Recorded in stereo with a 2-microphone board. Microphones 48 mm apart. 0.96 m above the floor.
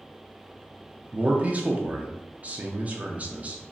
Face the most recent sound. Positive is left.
turn(degrees=-30)  # may be behind; listen again after turning